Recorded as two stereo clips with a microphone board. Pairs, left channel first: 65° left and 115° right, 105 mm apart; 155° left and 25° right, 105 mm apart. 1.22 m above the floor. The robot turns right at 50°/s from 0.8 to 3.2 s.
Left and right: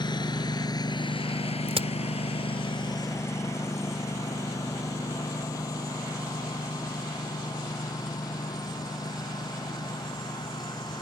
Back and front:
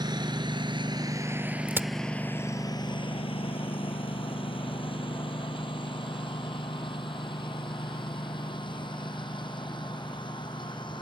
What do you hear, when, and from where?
0.0 s a lawn mower: 25° left; by 11.0 s 115° left
1.7 s a crack: 95° right; by 1.9 s 85° right